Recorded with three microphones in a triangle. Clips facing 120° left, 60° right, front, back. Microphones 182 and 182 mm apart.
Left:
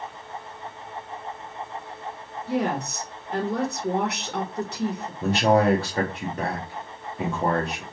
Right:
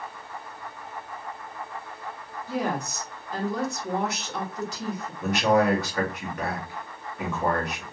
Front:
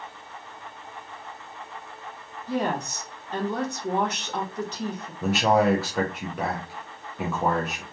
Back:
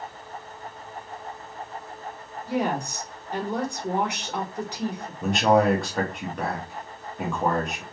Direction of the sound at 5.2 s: 85° left.